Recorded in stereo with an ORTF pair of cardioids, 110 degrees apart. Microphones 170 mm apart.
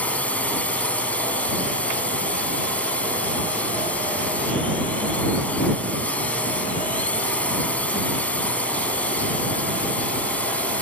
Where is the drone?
10° left.